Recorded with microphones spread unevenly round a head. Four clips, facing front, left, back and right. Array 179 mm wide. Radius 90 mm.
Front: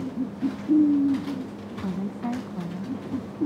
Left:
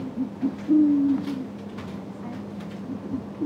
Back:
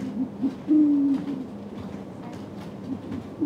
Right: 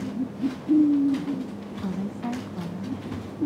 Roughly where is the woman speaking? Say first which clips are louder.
Right 4 dB, front 5 dB; ahead right.